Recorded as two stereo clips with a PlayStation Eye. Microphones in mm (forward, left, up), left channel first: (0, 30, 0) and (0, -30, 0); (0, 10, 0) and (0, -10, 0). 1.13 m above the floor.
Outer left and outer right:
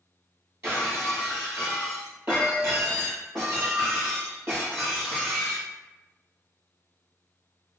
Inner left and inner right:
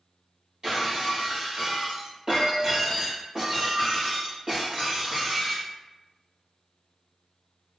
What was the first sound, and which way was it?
Breaking glass, 45° right (ahead or behind).